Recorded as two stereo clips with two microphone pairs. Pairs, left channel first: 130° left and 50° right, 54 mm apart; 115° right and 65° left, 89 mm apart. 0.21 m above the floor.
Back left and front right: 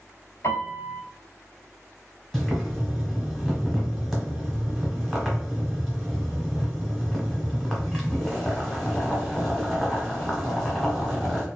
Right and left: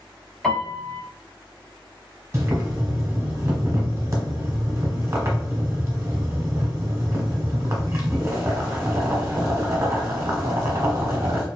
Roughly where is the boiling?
Ahead left.